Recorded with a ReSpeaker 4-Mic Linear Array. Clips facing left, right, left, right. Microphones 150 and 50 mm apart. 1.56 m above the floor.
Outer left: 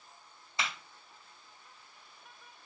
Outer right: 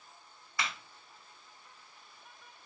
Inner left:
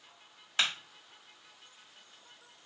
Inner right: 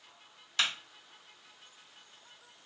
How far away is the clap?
About 1.6 m.